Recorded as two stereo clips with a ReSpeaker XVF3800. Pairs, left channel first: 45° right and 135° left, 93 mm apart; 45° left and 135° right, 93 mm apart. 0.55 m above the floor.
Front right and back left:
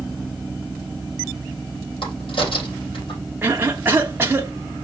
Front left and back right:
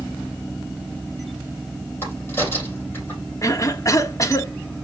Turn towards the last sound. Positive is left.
turn(degrees=80)